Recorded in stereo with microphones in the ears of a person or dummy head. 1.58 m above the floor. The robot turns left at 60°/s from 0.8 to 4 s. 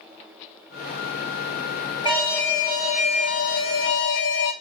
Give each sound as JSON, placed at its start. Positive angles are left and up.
{"t": 2.0, "sound": "an alarm", "azimuth_deg": -160, "distance_m": 2.0}